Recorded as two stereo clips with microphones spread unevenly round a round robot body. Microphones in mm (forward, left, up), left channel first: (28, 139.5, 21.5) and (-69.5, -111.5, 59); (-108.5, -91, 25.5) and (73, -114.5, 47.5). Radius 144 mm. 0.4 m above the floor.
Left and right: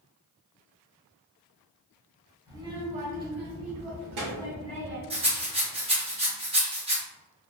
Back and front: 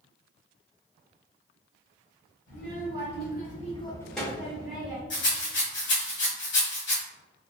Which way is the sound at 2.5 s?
170° left.